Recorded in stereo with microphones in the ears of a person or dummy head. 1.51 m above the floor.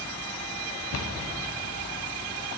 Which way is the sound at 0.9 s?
75° left (ahead or behind).